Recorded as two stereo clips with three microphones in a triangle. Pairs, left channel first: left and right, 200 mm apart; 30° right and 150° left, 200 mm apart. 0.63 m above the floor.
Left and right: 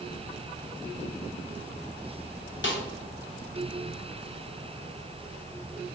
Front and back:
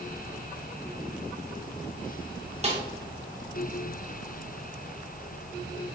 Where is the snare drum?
95° left, 0.6 m.